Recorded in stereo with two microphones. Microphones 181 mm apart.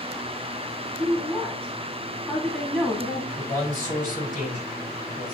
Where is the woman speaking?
10° left (ahead or behind), 2 m.